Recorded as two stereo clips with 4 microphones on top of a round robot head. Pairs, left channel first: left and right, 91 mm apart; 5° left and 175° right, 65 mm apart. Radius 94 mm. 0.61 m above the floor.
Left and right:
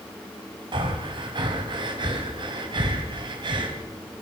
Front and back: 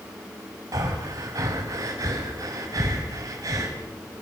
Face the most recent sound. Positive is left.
turn(degrees=-130)